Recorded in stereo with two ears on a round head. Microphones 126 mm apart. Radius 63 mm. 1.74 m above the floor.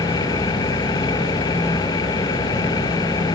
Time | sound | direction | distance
0.0 | an engine running | 25° left (ahead or behind) | ?